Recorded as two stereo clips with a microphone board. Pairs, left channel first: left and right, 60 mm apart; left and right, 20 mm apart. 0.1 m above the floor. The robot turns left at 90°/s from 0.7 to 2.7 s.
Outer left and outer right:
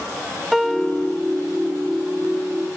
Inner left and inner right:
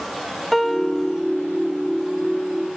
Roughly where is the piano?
Behind.